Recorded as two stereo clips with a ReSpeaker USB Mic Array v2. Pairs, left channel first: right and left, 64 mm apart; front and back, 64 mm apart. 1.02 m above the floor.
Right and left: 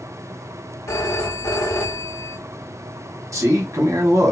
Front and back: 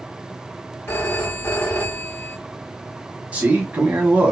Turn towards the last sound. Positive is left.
turn(degrees=115)